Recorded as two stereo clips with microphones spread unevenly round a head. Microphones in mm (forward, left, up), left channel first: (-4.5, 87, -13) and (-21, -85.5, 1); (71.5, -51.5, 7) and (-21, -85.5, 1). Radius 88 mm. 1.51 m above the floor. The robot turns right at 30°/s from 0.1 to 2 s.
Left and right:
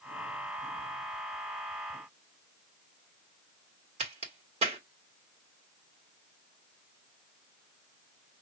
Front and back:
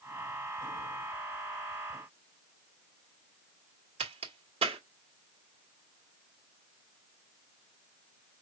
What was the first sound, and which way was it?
A crack, 150° right.